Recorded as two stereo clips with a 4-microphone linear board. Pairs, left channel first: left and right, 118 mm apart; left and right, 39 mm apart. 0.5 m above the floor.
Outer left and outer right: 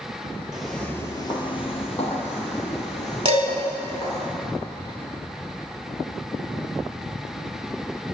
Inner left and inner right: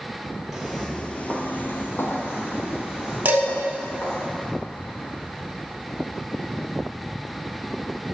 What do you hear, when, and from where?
0.5 s footsteps: 5° right (ahead or behind), 0.7 m; by 4.2 s 75° left (ahead or behind), 2.5 m
3.2 s dishes clattering: 50° right (ahead or behind), 1.0 m